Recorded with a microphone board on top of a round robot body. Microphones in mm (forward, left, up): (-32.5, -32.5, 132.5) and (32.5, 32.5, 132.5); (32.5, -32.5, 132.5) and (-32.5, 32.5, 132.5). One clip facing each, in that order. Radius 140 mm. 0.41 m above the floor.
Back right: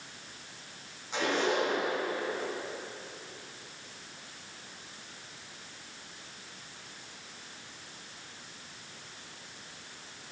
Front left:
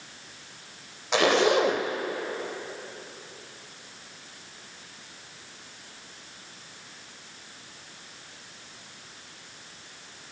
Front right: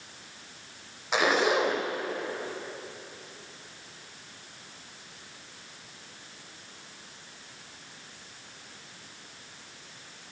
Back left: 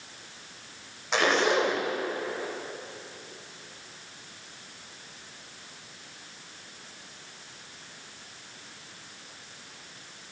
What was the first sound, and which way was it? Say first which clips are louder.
A zipper: front left 8 dB, even; 40° left.